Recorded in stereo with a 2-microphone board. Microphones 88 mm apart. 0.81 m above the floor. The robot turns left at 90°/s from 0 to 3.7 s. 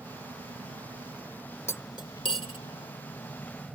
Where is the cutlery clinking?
30° left (ahead or behind); by 2.6 s 65° left (ahead or behind).